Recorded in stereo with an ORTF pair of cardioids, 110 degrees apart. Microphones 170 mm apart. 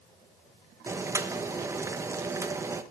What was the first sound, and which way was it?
Boiling, 15° right.